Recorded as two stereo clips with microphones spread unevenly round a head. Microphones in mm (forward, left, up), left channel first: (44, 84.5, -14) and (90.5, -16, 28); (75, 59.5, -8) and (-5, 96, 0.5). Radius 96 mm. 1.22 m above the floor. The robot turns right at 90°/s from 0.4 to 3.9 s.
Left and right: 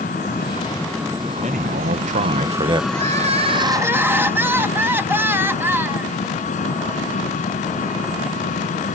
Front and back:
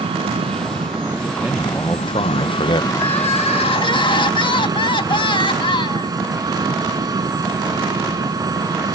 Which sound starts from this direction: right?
Crying, at 2.9 s.